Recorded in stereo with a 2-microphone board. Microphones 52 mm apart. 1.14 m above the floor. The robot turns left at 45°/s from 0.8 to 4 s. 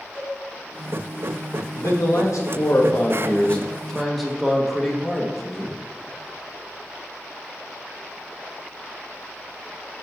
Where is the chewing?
No chewing in this recording.